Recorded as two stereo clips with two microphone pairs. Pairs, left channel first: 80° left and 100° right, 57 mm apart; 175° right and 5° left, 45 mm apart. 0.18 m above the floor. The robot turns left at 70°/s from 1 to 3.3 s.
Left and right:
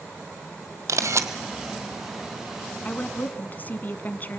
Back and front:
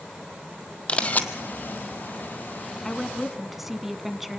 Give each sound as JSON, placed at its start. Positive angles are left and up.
{"t": 0.9, "sound": "a camera shutter", "azimuth_deg": -115, "distance_m": 1.1}
{"t": 2.9, "sound": "a woman speaking", "azimuth_deg": 115, "distance_m": 1.1}